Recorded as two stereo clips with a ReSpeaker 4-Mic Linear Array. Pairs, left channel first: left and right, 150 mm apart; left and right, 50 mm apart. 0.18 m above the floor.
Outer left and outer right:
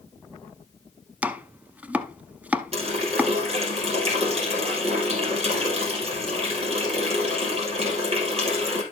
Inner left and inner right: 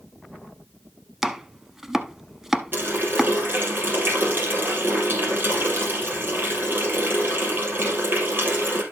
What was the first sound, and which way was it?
Chopping, 10° right (ahead or behind).